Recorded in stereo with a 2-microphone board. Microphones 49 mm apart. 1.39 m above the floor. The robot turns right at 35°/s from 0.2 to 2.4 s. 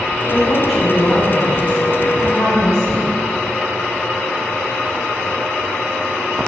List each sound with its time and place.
0.3 s a woman speaking: 5° right, 1.9 m; by 3.1 s 65° left, 1.9 m